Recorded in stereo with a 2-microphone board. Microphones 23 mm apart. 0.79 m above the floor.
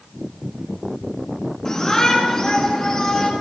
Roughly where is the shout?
Left.